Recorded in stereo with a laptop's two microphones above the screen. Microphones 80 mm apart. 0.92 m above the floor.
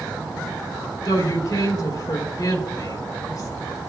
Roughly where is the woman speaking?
Left.